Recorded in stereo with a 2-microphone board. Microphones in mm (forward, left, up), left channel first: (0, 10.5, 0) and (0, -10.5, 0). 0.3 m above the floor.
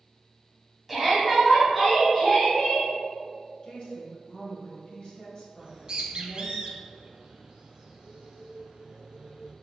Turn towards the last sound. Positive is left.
turn(degrees=-40)  # may be behind; listen again after turning